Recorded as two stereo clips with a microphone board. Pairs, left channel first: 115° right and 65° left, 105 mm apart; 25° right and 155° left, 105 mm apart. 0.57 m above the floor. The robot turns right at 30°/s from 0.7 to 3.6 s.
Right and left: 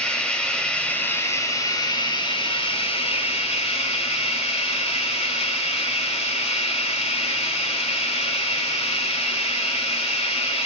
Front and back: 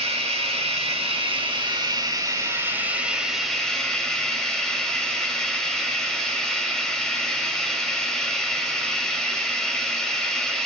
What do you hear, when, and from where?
0.0 s running water: 165° left, 2.5 m; by 10.7 s 105° right, 2.5 m